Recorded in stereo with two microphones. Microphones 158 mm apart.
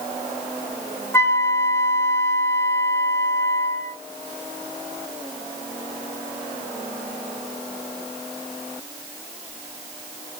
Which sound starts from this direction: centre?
A flute, at 1.1 s.